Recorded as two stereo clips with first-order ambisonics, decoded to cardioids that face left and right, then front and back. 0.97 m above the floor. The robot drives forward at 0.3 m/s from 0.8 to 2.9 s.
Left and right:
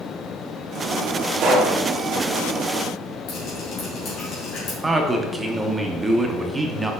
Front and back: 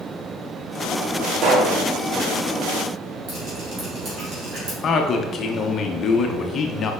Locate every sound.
1.4 s a pop: 145° right, 1.7 m; by 1.8 s 150° right, 1.8 m
3.3 s dripping: 125° left, 3.5 m
4.8 s a man speaking: 15° right, 0.7 m